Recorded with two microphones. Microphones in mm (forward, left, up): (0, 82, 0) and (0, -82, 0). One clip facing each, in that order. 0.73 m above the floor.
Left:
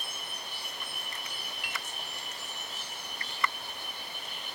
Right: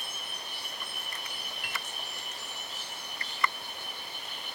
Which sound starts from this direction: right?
A piano, at 1.6 s.